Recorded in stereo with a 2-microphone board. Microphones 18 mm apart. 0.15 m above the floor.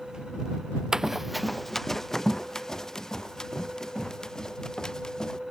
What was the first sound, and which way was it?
Running footsteps, 30° right (ahead or behind).